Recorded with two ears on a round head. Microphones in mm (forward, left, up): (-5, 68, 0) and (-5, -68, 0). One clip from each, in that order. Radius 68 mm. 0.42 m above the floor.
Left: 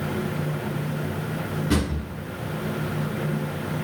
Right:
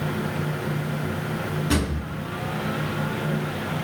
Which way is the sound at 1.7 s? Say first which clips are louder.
Even; 45° right (ahead or behind).